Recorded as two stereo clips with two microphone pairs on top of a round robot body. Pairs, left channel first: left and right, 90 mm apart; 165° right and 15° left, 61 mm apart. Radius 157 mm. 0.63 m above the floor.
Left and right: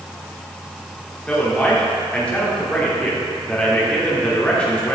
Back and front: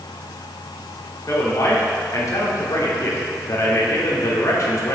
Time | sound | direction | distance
1.3 | a man speaking | 165° left | 3 m